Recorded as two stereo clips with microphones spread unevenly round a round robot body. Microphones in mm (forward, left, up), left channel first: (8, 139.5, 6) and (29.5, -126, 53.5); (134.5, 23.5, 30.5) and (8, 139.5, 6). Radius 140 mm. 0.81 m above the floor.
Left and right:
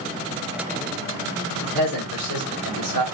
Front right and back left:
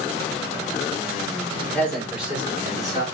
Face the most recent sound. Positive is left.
turn(degrees=70)